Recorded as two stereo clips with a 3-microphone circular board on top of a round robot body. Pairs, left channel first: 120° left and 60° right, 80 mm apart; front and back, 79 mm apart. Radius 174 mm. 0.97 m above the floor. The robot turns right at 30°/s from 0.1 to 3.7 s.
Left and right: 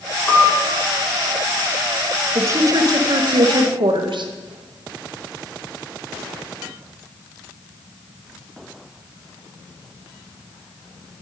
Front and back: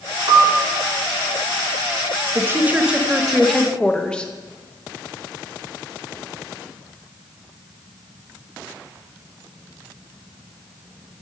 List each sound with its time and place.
0.3 s a piano: 155° right, 3 m; by 0.6 s 145° right, 3 m
2.4 s a woman speaking: 120° right, 0.9 m; by 4.3 s 80° right, 0.9 m